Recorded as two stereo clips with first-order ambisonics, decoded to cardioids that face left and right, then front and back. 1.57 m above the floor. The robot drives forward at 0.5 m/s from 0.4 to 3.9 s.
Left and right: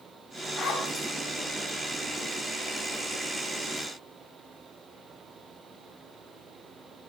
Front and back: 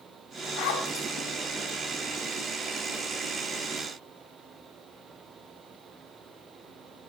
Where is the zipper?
30° left, 6 m; by 1.1 s 35° left, 6 m.